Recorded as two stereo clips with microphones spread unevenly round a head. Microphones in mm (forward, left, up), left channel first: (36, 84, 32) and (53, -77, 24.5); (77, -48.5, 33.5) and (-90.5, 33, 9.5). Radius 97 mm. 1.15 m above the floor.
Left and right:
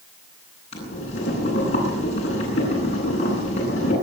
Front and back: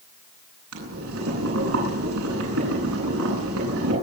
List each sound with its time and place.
0.7 s boiling: 155° left, 10 m